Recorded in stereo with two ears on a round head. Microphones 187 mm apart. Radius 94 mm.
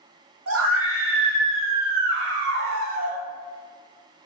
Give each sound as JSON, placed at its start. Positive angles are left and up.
{"t": 0.5, "sound": "a scream", "side_deg": -80, "distance_m": 2.5}